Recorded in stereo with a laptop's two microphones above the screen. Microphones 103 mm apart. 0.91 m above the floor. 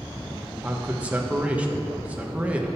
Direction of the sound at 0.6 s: 10° right (ahead or behind).